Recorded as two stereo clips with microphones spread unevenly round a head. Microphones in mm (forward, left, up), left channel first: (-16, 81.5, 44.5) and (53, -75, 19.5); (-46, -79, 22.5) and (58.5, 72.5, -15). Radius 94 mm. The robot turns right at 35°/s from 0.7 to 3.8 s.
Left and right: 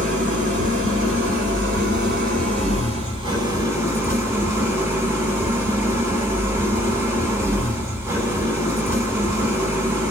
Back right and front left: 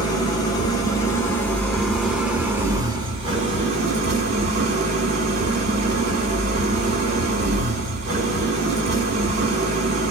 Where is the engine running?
95° right, 1.1 m; by 10.1 s 10° left, 1.1 m.